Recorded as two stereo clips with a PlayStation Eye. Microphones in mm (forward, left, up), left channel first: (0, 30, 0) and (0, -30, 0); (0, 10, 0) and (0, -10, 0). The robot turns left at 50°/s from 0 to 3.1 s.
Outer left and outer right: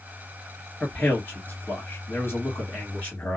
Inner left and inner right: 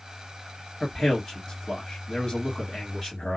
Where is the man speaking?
155° left, 2 m; by 3.4 s 40° left, 2 m.